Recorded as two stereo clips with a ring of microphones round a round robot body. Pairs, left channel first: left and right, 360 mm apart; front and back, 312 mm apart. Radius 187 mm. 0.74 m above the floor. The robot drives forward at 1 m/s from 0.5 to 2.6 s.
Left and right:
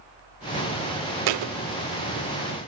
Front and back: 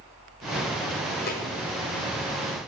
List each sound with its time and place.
1.3 s a thud: 65° right, 0.5 m; by 1.5 s 95° right, 0.5 m